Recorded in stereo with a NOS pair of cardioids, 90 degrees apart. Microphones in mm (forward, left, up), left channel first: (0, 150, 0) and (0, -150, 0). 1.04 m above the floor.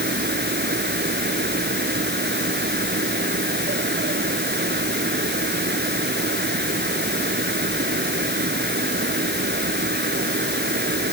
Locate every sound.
0.0 s a fan: 35° right